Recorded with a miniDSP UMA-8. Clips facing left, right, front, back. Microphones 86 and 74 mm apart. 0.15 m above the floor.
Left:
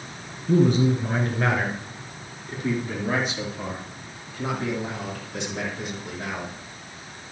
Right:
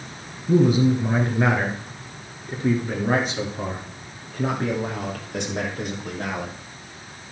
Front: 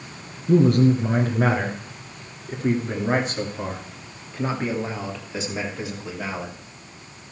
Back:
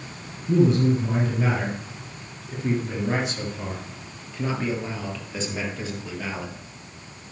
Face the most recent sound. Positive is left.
turn(degrees=-80)